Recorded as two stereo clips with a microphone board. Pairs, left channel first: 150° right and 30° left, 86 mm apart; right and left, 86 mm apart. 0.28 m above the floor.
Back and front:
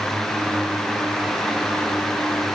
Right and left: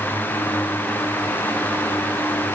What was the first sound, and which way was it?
Only background noise.